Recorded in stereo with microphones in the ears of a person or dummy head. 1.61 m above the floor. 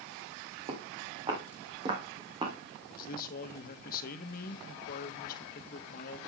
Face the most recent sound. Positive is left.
turn(degrees=55)  # may be behind; listen again after turning